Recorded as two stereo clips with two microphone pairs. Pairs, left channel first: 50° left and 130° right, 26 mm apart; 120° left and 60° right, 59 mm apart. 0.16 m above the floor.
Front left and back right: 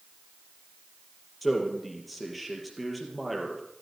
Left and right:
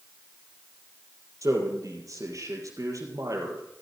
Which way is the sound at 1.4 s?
40° right.